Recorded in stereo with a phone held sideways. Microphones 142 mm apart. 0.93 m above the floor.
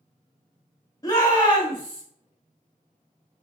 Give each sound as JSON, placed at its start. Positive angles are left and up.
{"t": 1.0, "sound": "a shout", "side_deg": 25, "distance_m": 1.7}